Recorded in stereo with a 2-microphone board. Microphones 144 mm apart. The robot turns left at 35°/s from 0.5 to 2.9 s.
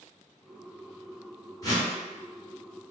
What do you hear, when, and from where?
1.6 s a whoosh: 25° left (ahead or behind), 1.4 m; by 1.9 s 30° left (ahead or behind), 1.4 m